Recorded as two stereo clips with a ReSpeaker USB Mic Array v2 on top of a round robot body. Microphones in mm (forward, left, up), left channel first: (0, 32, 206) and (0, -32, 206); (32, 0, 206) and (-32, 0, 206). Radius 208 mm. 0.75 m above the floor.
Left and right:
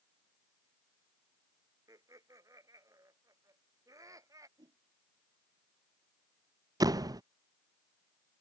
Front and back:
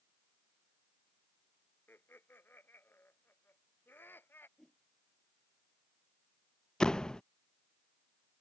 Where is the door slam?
80° right.